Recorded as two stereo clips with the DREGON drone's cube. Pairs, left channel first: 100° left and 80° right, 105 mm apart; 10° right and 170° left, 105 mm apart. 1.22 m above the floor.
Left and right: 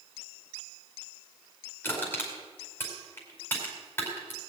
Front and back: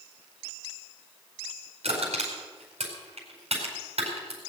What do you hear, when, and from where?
1.8 s crushing: 170° left, 5 m